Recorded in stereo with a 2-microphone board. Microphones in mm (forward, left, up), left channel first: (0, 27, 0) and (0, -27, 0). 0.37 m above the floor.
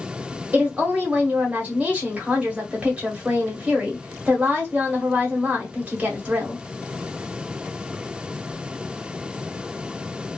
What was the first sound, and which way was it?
A woman speaking, 25° right (ahead or behind).